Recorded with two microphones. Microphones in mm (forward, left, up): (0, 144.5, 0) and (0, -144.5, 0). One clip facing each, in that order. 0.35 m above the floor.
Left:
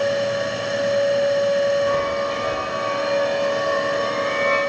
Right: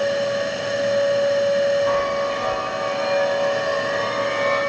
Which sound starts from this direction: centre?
A chime, at 1.9 s.